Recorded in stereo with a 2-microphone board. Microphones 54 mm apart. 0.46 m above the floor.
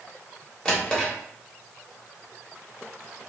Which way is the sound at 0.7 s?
15° left (ahead or behind).